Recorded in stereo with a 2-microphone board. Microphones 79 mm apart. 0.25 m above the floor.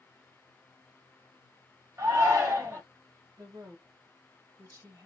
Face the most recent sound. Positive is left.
turn(degrees=-45)  # may be behind; listen again after turning